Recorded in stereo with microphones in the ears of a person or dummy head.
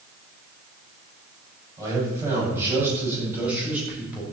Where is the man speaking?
15° right (ahead or behind), 9.5 m; by 4.2 s 5° right (ahead or behind), 7.5 m.